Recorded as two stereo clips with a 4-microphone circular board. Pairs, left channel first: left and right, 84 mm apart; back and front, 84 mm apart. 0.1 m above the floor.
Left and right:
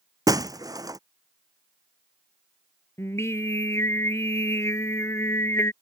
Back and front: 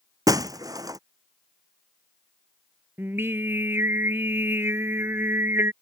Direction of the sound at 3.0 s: 50° left.